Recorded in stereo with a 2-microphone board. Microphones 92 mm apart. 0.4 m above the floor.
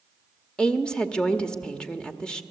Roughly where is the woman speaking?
Centre.